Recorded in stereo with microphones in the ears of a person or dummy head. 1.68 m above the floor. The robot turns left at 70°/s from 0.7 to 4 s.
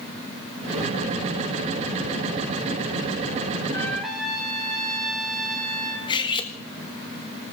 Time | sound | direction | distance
3.7 | a trumpet | 20° left (ahead or behind) | 2.5 m
6.1 | cutlery clinking | 25° left (ahead or behind) | 1.5 m